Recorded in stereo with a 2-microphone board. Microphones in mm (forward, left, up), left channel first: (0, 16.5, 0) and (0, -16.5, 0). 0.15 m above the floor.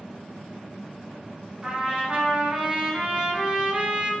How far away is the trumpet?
About 0.9 m.